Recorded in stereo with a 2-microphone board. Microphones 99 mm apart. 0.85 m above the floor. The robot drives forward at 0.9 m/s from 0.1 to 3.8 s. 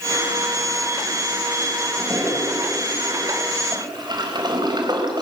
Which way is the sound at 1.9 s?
30° right (ahead or behind).